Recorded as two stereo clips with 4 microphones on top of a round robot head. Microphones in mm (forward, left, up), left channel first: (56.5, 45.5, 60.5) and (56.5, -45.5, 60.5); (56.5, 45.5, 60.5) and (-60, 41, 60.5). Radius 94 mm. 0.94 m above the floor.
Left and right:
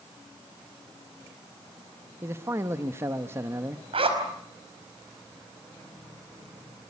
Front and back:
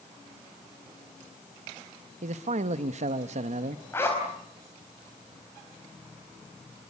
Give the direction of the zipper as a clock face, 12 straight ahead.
2 o'clock.